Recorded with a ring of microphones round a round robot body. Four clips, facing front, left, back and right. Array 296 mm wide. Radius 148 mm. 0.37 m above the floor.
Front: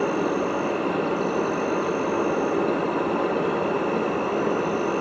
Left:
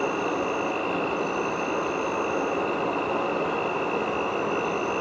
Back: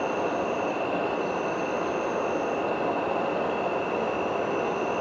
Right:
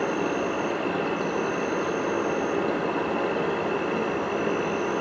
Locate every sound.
0.0 s an insect: 15° right, 6.5 m